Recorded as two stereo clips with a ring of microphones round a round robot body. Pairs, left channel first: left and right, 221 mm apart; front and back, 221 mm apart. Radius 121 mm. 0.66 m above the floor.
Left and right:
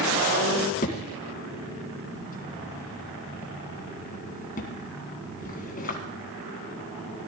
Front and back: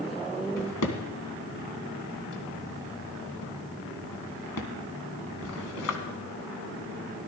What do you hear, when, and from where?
0.6 s a drawer: 35° left, 1.6 m